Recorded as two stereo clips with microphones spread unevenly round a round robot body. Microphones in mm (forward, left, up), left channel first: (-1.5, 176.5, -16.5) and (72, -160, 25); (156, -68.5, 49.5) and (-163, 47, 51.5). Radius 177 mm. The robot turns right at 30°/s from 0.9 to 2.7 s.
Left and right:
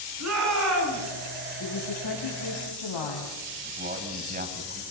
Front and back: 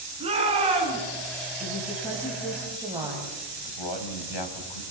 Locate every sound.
0.2 s a shout: 125° right, 7.5 m
1.6 s a woman speaking: 45° left, 3.5 m; by 3.4 s 80° left, 3.5 m
3.6 s a man speaking: 10° right, 3.5 m